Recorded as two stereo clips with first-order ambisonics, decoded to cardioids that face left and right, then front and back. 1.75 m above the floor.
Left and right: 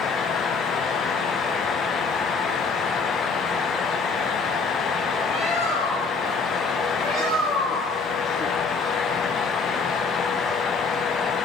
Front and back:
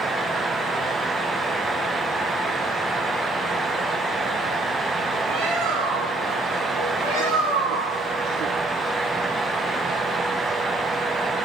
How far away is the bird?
About 3 m.